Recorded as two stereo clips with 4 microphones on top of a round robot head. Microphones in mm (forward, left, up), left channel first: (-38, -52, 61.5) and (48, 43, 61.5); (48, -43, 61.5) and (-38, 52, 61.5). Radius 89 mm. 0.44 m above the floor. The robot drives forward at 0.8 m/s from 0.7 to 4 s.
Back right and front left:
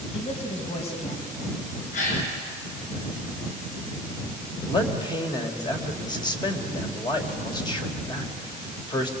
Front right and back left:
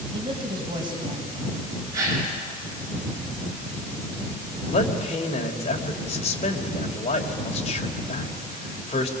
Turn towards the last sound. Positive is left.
turn(degrees=-80)